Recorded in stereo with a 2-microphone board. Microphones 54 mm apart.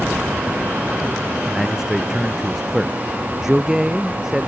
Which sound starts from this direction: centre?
A man speaking, at 1.4 s.